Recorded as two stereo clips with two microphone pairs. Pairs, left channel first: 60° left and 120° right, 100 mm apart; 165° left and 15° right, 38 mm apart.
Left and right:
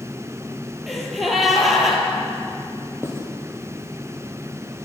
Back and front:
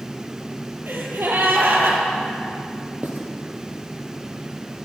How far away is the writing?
About 2.5 m.